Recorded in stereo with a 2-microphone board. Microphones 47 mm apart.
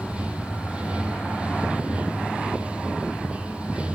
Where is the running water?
25° right (ahead or behind), 2.0 m.